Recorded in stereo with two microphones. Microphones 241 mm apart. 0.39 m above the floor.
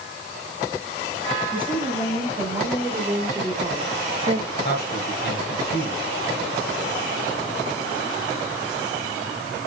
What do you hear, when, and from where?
1.5 s a woman speaking: 5° right (ahead or behind), 3.5 m; by 4.4 s 20° right (ahead or behind), 1.1 m
4.5 s a man speaking: 45° left (ahead or behind), 3.5 m